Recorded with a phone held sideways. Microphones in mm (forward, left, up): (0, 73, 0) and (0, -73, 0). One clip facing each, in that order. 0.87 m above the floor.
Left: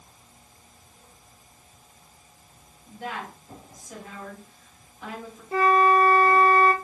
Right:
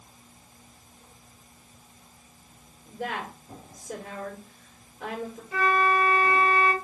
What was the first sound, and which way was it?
A woman speaking, 70° right (ahead or behind).